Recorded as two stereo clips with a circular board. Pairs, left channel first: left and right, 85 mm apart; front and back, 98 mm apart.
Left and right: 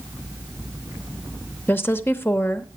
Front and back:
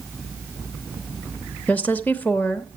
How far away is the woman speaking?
About 0.9 m.